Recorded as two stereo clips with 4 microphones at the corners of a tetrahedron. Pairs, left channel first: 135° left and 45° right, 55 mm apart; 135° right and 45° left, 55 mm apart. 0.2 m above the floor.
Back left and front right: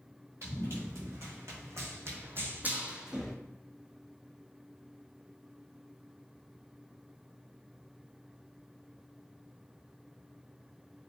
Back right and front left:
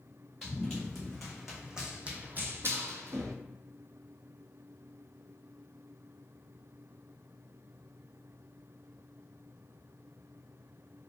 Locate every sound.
0.4 s running footsteps: 55° right, 1.3 m; by 3.3 s 40° left, 0.6 m